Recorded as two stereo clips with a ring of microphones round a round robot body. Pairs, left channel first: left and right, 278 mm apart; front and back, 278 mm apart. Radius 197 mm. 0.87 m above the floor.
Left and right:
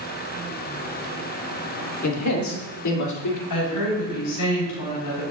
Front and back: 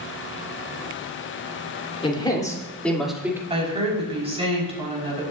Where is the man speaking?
70° left, 3.5 m; by 3.4 s 100° left, 2.5 m.